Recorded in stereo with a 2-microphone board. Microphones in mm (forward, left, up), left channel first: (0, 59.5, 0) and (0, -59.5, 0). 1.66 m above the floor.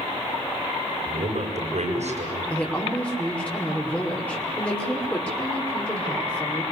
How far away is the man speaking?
About 9.5 m.